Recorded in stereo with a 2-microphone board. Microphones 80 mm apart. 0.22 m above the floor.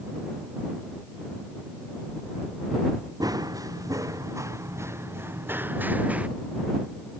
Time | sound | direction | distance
3.2 | running footsteps | 55° right (ahead or behind) | ?